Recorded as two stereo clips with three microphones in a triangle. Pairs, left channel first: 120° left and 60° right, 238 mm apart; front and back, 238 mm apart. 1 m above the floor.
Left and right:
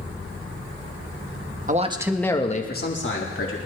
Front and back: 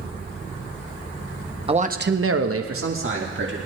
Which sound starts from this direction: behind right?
A man speaking, at 1.7 s.